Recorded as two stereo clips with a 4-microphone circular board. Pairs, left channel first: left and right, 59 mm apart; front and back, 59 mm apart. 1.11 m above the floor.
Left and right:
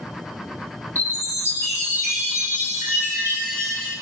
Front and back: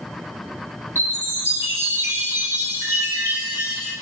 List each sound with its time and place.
0.9 s a chime: 130° right, 1.8 m